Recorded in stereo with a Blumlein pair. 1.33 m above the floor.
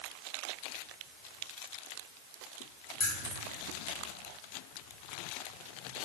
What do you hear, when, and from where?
3.0 s keys jangling: 50° left, 1.8 m